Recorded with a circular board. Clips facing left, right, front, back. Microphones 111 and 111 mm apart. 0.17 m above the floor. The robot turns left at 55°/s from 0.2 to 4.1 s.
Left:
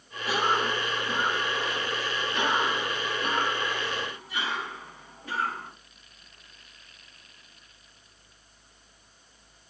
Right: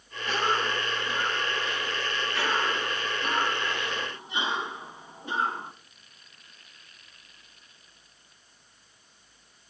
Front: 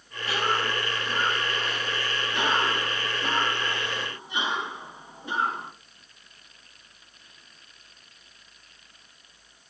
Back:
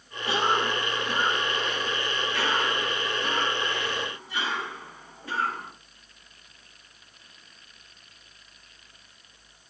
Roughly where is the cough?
Behind.